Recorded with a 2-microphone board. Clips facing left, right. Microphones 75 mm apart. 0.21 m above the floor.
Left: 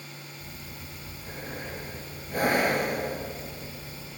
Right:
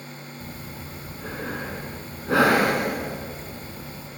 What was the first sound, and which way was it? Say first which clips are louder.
Breathing: right 6 dB; 70° right (ahead or behind).